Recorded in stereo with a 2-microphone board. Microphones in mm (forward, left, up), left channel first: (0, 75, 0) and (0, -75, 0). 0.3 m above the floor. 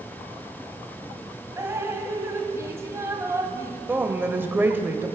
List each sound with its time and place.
1.6 s dripping: 20° right (ahead or behind), 1.3 m
3.9 s a woman speaking: 15° right (ahead or behind), 0.9 m